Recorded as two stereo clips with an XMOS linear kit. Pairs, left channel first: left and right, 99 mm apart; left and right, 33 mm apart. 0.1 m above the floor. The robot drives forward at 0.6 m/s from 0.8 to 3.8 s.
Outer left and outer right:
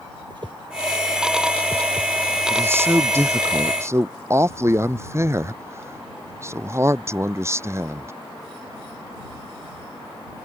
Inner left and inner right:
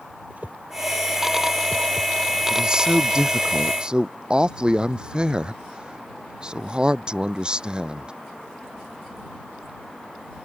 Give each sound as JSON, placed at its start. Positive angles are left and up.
{"t": 0.3, "sound": "a whoosh", "side_deg": -50}
{"t": 2.5, "sound": "a man speaking", "side_deg": -25}